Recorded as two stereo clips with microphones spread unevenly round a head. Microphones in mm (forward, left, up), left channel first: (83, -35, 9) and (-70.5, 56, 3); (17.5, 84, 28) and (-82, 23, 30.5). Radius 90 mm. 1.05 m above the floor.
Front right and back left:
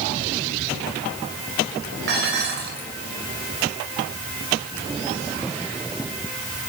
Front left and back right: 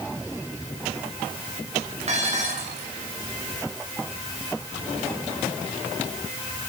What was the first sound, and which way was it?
Dishes clattering, 175° right.